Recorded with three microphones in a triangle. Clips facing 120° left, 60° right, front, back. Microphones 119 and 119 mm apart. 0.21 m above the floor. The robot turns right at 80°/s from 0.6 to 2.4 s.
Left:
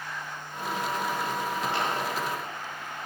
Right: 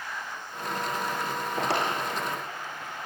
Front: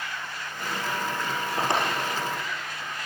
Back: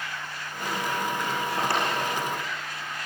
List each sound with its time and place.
1.6 s a drawer: 80° right, 5.5 m; by 3.1 s 15° right, 5.5 m